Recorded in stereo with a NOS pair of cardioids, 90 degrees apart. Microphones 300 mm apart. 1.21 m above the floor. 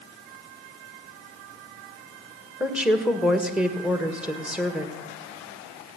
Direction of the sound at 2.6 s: 5° right.